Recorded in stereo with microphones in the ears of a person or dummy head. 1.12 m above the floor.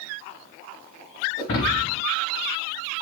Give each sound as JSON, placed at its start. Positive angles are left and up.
{"t": 1.4, "sound": "breaking glass", "side_deg": 45, "distance_m": 3.0}